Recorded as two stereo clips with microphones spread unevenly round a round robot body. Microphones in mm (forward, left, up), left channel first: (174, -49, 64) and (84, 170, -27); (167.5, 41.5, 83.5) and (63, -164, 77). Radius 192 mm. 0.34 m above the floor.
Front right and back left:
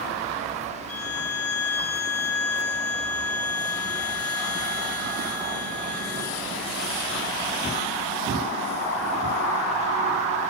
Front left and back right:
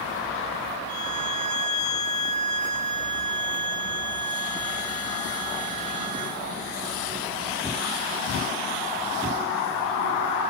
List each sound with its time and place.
0.9 s a violin: 45° right, 8 m